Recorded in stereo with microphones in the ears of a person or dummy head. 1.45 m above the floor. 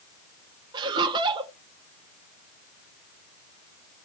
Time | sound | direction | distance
0.7 | laughter | 25° right (ahead or behind) | 0.7 m